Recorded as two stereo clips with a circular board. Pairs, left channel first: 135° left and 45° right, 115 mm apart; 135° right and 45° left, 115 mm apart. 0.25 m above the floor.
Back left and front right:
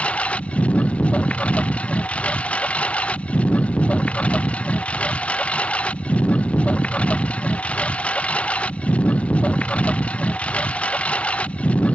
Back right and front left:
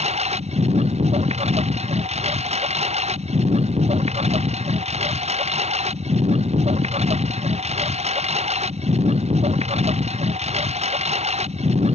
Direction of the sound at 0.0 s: 55° left.